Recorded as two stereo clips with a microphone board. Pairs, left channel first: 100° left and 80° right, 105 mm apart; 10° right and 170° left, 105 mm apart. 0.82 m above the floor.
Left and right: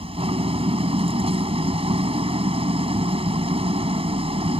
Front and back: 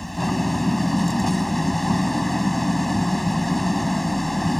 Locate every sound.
0.0 s an engine running: 100° right